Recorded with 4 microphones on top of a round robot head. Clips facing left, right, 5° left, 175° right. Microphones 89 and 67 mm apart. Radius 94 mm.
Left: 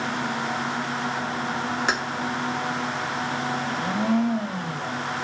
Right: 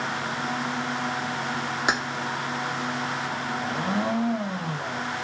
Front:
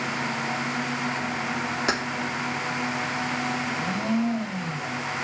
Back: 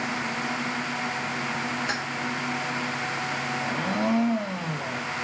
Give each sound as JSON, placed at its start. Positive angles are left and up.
{"t": 1.9, "sound": "keys jangling", "azimuth_deg": -15, "distance_m": 2.5}
{"t": 3.6, "sound": "a blender", "azimuth_deg": -160, "distance_m": 1.4}